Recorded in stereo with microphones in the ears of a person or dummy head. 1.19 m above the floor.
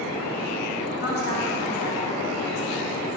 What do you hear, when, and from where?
1.0 s a woman speaking: 45° left (ahead or behind), 1.4 m